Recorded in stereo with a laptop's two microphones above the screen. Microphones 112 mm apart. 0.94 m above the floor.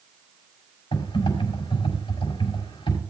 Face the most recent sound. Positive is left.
turn(degrees=45)  # may be behind; listen again after turning